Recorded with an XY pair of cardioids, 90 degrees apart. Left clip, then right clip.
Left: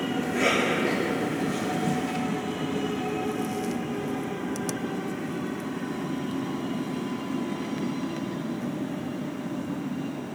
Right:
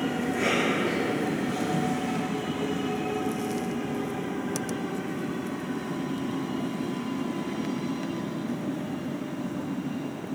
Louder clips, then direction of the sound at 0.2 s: Left 2 dB; 35° left.